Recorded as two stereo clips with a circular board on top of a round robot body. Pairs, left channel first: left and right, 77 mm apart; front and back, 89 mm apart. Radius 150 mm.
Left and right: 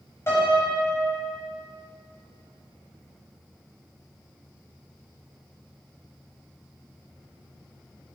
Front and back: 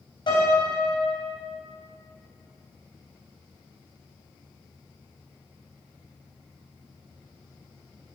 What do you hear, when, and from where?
0.3 s a piano: 35° left, 4 m